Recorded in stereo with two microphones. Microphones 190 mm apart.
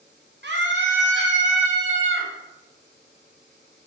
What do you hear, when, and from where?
0.4 s a scream: 70° right (ahead or behind), 0.9 m; by 2.3 s 80° right, 2.0 m